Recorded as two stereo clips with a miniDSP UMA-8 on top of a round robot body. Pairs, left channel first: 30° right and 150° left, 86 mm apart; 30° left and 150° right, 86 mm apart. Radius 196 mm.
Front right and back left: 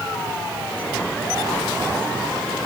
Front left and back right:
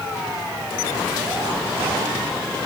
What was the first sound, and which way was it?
Only background noise.